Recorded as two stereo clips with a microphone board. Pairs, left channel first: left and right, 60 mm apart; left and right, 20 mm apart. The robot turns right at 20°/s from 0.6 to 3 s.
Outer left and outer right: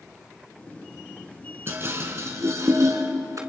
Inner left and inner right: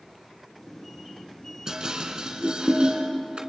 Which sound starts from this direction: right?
Dishes clattering, at 1.7 s.